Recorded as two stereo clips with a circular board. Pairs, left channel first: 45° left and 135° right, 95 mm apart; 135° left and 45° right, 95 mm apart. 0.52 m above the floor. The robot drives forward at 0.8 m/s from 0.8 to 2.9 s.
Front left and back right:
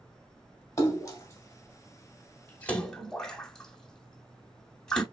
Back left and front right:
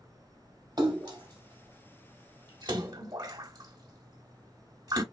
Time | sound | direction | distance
0.8 | a splash | 10° right | 2 m